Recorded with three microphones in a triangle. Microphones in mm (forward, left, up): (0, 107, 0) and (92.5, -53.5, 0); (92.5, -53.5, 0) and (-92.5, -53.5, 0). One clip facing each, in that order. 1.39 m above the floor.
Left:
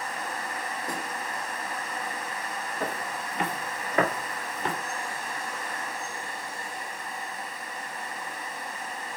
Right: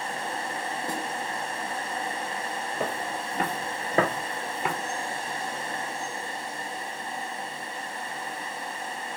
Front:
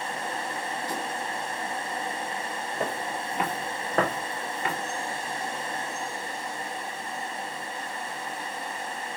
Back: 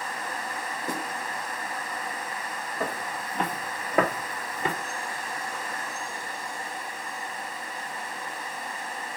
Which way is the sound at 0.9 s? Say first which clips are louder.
Right 2 dB, back 3 dB; 145° right.